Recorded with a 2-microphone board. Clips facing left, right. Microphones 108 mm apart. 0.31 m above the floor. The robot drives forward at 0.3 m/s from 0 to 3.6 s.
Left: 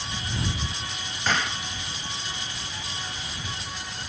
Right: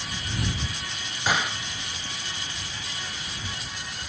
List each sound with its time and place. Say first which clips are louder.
1.3 s a gunshot: right 1 dB; 10° right (ahead or behind), 0.8 m; by 1.6 s 15° right (ahead or behind), 0.7 m